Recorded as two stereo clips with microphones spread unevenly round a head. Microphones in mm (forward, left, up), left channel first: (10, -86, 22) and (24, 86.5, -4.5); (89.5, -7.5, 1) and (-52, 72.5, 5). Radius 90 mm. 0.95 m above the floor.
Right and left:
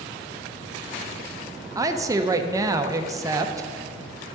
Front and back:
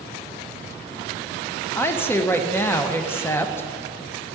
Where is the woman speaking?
40° left, 0.6 m.